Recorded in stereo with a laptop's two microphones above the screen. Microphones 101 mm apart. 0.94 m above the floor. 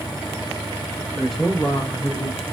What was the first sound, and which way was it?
A man speaking, centre (ahead or behind).